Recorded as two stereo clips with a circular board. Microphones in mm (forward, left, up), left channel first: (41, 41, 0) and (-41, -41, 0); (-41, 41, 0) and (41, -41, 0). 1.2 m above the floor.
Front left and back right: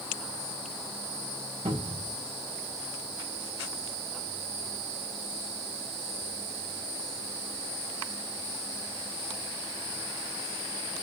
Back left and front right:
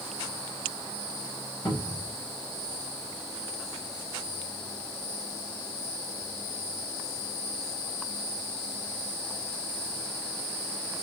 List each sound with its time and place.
1.6 s a cupboard door: 165° right, 2.0 m